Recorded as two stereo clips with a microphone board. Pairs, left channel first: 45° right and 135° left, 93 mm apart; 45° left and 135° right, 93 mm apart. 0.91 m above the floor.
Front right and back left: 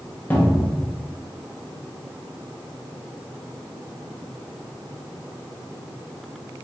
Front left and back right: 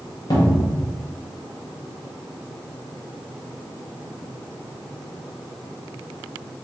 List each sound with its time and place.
0.3 s a cupboard door: 20° left, 1.1 m